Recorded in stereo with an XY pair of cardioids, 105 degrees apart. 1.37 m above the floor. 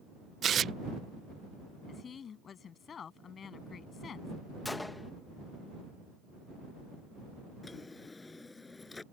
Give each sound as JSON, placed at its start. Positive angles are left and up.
{"t": 0.4, "sound": "tearing paper", "azimuth_deg": -55}
{"t": 1.9, "sound": "a woman speaking", "azimuth_deg": 50}
{"t": 4.7, "sound": "a gunshot", "azimuth_deg": 15}
{"t": 7.6, "sound": "a drawer", "azimuth_deg": 20}